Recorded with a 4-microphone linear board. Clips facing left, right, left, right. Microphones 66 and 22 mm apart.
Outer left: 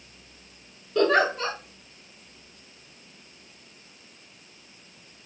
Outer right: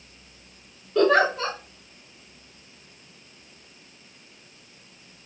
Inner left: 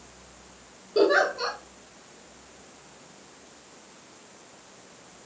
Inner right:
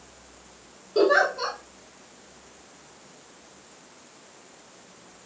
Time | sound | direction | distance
0.9 | a giggle | 5° right (ahead or behind) | 2.5 m